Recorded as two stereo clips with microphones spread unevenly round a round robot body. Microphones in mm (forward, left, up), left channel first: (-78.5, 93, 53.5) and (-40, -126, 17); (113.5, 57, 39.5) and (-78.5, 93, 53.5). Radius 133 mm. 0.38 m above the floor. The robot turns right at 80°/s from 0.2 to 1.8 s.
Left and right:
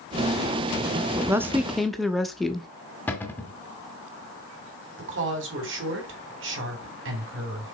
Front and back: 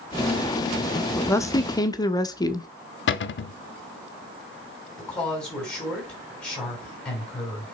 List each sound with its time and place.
1.1 s a woman speaking: 65° right, 0.8 m; by 2.7 s 10° right, 0.8 m
3.1 s a cupboard door: 15° left, 0.6 m
5.0 s a woman speaking: 95° right, 3 m